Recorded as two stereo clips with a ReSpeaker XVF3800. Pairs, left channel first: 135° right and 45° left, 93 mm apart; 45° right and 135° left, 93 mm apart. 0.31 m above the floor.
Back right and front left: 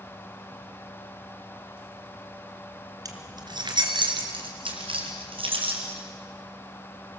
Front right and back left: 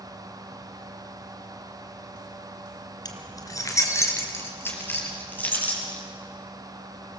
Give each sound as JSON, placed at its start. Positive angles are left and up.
{"t": 3.0, "sound": "keys jangling", "azimuth_deg": -5, "distance_m": 2.0}